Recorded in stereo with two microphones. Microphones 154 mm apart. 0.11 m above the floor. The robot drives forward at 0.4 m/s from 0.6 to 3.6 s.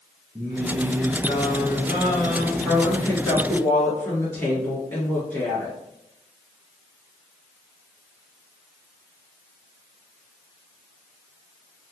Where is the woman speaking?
15° left (ahead or behind), 1.8 m.